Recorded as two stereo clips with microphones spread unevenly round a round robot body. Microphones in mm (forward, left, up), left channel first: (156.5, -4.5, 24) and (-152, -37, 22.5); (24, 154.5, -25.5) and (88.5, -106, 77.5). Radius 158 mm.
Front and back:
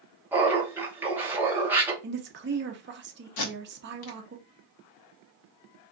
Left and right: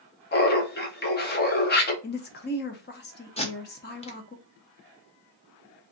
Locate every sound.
0.3 s laughter: 105° left, 0.9 m
2.0 s a woman speaking: 135° left, 0.6 m
3.4 s tape being pulled: 30° left, 0.8 m